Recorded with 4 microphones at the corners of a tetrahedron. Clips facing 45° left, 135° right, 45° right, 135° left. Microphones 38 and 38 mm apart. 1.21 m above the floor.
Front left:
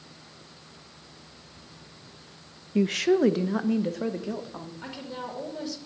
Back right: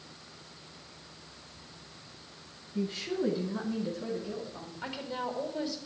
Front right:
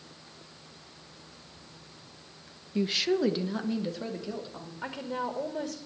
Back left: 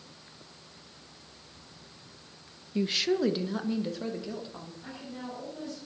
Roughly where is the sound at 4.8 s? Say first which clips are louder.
Back right 3 dB, front right 9 dB; ahead right.